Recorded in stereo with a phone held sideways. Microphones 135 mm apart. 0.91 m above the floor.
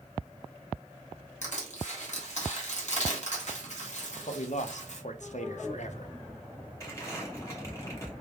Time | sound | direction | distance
1.4 | crushing | 60° left (ahead or behind) | 1.4 m
4.3 | a man speaking | 60° left (ahead or behind) | 0.6 m
6.8 | crumpling | 20° left (ahead or behind) | 2 m